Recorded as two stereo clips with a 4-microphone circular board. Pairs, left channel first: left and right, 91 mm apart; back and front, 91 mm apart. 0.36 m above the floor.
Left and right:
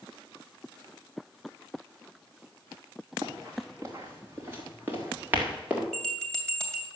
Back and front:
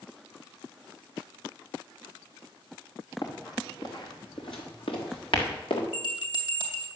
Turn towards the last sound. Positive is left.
turn(degrees=170)